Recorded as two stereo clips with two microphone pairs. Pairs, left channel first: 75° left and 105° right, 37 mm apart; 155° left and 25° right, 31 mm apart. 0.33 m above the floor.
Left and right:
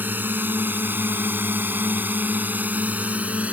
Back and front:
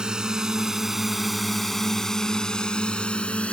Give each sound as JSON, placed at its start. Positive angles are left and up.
{"t": 0.0, "sound": "a drone", "azimuth_deg": -85}